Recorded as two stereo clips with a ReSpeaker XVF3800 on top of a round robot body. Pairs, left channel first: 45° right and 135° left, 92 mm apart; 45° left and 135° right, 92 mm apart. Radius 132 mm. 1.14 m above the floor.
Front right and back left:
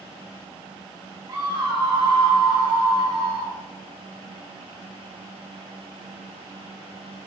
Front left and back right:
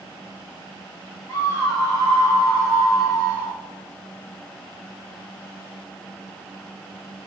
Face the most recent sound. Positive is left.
turn(degrees=105)